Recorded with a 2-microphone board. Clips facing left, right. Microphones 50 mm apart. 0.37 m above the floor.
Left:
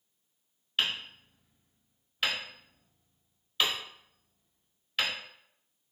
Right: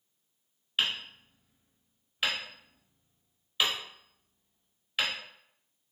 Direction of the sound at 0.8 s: 5° right (ahead or behind).